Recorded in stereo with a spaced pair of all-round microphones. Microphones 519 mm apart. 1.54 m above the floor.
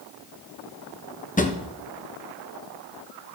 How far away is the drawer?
About 0.7 m.